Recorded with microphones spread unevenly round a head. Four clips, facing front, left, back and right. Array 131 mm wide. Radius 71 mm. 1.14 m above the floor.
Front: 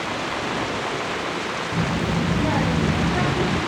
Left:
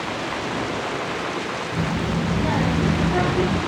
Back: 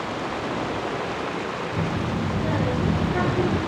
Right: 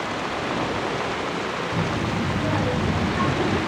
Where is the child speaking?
Straight ahead, 1.0 m; by 3.6 s 80° left, 1.3 m.